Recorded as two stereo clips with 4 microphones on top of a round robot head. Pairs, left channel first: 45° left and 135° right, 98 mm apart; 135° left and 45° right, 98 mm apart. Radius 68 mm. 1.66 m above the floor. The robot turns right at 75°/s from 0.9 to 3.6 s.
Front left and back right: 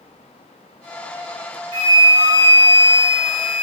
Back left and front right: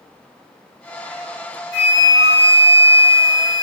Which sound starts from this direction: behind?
A flute, at 1.7 s.